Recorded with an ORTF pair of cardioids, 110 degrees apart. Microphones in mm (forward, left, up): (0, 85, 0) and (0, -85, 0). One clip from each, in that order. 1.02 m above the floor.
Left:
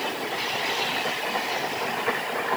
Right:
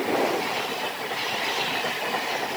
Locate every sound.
Only background noise.